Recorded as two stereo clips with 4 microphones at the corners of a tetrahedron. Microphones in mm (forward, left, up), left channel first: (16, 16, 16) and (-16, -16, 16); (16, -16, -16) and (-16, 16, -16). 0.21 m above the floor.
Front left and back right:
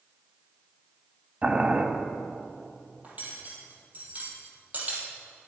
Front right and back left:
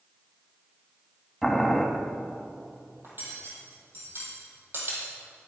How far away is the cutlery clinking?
About 4.5 m.